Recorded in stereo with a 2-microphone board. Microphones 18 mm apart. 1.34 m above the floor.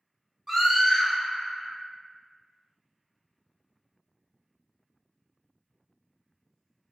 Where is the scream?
25° right (ahead or behind), 1.5 m.